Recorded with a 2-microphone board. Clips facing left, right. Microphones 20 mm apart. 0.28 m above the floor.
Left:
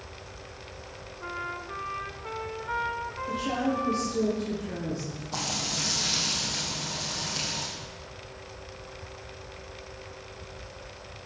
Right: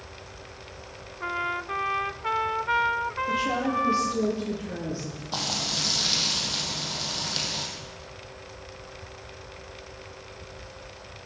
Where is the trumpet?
55° right (ahead or behind), 0.5 m.